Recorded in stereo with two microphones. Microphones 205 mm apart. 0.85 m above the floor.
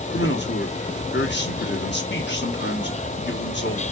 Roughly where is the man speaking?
Left.